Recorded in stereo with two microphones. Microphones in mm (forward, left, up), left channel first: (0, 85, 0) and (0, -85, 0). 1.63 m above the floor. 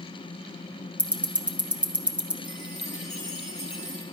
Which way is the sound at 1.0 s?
5° right (ahead or behind).